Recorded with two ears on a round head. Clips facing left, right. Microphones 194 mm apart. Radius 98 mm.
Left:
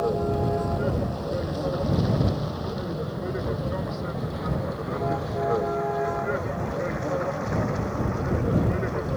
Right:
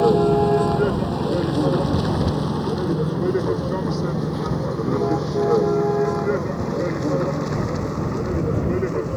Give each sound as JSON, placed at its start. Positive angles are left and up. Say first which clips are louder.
{"t": 0.0, "sound": "a vehicle", "louder": "right 9 dB", "side_deg": -85}